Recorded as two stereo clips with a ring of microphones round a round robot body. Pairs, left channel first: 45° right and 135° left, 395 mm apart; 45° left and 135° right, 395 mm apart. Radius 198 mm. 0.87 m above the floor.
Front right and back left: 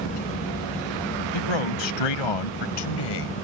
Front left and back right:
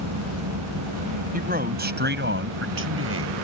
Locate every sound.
1.3 s a man speaking: 65° right; by 3.4 s 80° right